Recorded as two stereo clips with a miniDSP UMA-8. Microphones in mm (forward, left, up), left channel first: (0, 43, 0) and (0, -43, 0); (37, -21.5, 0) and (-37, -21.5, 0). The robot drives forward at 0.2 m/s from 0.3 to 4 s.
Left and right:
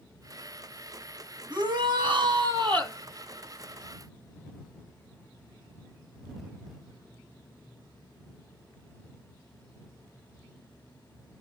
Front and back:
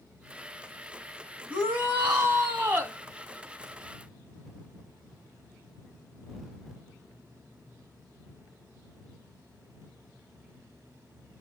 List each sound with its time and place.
1.5 s a shout: 115° right, 2.5 m; by 3.0 s 120° right, 2.5 m